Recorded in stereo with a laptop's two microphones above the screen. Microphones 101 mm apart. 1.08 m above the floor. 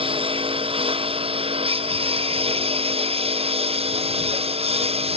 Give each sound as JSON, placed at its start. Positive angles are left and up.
{"t": 0.0, "sound": "a lawn mower", "side_deg": -65}